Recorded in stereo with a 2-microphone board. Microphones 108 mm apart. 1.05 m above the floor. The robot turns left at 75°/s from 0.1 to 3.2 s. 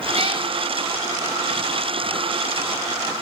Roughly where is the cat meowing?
Right.